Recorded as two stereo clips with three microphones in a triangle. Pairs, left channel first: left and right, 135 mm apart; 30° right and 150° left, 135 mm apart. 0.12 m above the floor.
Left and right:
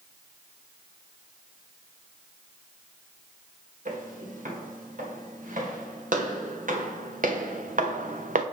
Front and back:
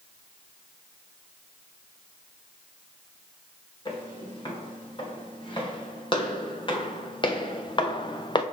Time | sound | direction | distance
3.9 | footsteps | 80° right | 3.5 m